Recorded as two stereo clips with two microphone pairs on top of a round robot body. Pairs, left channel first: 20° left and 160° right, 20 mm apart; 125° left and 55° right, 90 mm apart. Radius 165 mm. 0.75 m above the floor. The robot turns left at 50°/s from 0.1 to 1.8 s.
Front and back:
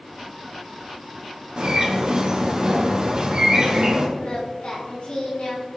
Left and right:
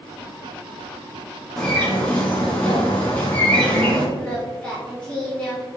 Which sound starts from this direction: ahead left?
Singing, at 4.2 s.